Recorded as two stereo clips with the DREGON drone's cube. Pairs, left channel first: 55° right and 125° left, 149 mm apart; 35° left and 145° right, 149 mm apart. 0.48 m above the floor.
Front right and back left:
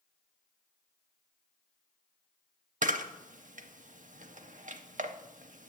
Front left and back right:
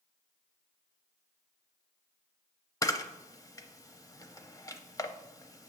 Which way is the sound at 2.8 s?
100° left.